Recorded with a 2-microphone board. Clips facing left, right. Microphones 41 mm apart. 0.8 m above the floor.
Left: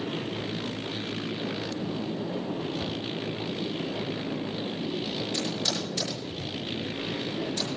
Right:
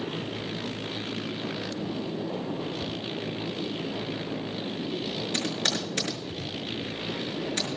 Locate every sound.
2.8 s a cupboard door: 15° left (ahead or behind), 1.0 m
5.3 s typing on a keyboard: 55° right (ahead or behind), 5.5 m